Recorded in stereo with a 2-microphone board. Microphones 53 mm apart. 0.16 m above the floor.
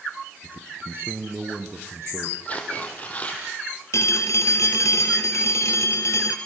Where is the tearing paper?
25° left (ahead or behind), 4.5 m.